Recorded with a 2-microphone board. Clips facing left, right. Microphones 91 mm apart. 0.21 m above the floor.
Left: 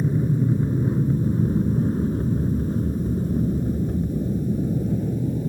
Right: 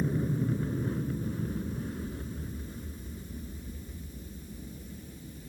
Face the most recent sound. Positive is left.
turn(degrees=70)  # may be behind; listen again after turning